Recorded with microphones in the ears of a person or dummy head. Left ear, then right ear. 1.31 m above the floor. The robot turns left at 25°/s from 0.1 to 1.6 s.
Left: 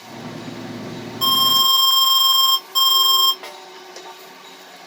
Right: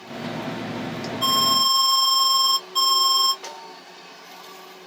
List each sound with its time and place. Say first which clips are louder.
1.2 s an alarm: left 4 dB; 45° left (ahead or behind), 1.3 m; by 3.3 s 55° left (ahead or behind), 1.3 m
3.4 s a snare drum: left 1 dB; 35° left (ahead or behind), 1.3 m